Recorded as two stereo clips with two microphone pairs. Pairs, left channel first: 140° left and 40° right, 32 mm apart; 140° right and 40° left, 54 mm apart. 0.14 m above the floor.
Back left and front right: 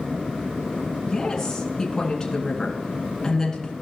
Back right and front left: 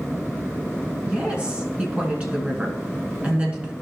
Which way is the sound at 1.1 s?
85° left.